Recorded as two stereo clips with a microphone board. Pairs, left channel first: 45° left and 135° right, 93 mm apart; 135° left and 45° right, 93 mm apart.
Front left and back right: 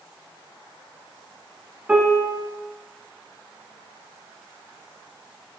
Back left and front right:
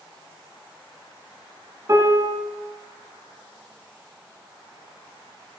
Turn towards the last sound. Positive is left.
turn(degrees=-65)